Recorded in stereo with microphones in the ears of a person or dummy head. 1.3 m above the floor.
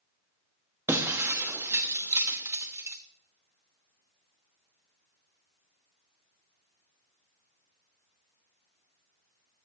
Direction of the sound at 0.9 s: 10° right (ahead or behind).